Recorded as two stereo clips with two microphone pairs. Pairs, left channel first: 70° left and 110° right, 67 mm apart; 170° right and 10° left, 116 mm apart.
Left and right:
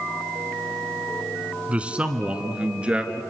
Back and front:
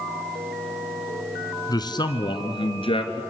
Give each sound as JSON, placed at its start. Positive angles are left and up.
{"t": 1.7, "sound": "a man speaking", "azimuth_deg": -165, "distance_m": 1.8}